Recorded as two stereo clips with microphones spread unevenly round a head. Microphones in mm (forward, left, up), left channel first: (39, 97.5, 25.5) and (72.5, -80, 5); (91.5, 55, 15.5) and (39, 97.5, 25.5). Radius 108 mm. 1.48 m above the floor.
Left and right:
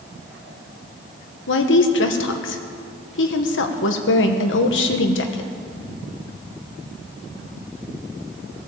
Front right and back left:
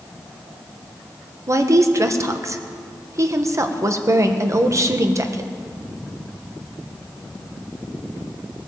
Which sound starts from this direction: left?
A woman speaking, at 1.5 s.